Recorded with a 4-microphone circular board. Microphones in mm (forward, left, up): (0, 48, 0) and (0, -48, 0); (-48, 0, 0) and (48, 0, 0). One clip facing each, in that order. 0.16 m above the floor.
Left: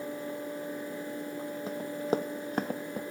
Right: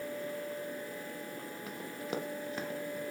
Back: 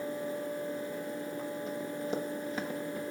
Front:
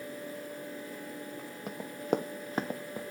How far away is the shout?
I don't hear a shout.